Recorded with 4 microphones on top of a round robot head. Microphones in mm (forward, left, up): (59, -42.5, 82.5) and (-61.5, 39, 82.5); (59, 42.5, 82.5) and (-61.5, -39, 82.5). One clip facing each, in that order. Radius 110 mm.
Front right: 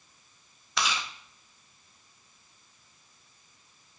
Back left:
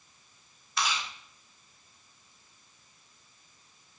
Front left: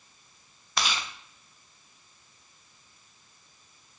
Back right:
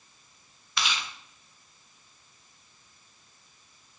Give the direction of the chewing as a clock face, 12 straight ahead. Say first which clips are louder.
Front right 1 dB, front left 2 dB; 12 o'clock.